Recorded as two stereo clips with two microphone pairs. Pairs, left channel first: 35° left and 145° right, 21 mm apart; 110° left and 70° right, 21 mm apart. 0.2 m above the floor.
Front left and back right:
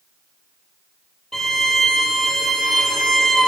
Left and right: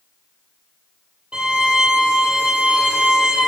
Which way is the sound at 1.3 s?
35° right.